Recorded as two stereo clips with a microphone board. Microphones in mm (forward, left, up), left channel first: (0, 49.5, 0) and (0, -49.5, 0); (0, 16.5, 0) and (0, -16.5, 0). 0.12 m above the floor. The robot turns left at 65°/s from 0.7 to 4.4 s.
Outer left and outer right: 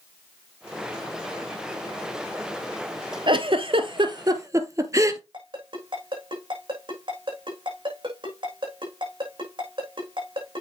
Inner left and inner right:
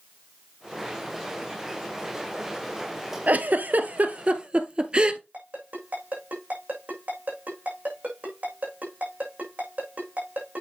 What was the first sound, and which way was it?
A giggle, 55° right (ahead or behind).